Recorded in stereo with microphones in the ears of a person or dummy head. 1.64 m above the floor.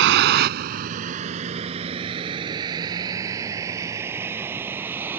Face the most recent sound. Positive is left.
turn(degrees=-10)  # may be behind; listen again after turning